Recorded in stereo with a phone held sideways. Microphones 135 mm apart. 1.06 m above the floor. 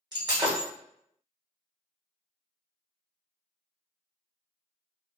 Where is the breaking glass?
30° right (ahead or behind), 1.5 m.